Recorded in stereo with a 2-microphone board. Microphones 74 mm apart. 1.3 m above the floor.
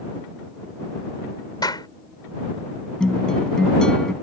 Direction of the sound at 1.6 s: 65° left (ahead or behind).